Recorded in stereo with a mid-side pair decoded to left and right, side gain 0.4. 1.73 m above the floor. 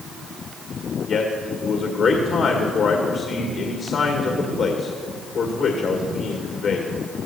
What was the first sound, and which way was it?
A man speaking, 65° left.